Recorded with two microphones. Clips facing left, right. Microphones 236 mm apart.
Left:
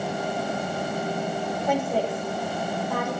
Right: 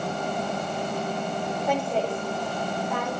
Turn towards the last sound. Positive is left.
turn(degrees=0)  # may be behind; listen again after turning